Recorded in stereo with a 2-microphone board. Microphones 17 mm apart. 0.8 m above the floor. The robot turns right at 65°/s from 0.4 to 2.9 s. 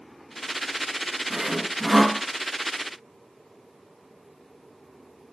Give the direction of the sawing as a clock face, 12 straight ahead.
1 o'clock.